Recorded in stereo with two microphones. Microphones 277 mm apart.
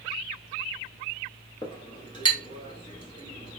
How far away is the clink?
About 0.8 m.